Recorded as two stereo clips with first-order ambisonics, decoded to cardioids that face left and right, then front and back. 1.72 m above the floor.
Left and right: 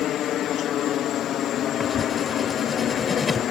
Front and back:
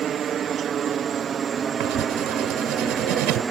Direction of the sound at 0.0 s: 130° left.